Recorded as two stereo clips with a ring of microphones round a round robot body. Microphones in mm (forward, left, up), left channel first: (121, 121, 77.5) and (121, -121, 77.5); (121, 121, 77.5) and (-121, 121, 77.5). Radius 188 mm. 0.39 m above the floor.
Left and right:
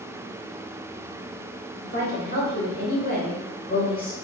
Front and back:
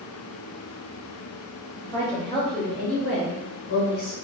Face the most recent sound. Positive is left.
turn(degrees=15)